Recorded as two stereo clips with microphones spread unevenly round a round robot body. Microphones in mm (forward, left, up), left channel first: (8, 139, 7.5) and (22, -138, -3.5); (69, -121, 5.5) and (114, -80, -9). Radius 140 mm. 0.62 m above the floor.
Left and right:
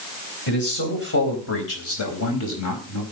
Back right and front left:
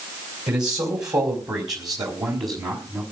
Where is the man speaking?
40° left, 4 m; by 3.0 s 65° left, 4.5 m.